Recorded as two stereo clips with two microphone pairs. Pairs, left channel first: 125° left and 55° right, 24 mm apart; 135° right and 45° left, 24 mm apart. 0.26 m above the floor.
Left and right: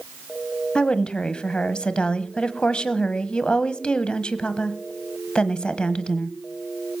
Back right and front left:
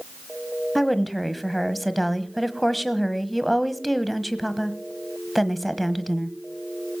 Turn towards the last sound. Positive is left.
turn(degrees=135)